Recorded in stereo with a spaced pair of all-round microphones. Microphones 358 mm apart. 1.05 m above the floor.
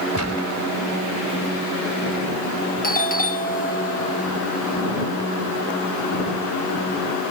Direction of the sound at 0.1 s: 50° left (ahead or behind).